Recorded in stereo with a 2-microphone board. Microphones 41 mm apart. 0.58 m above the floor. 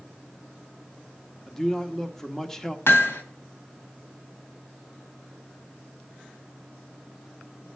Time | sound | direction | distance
1.5 | a man speaking | 10° left (ahead or behind) | 1.3 m
2.9 | hammering | 85° left | 2 m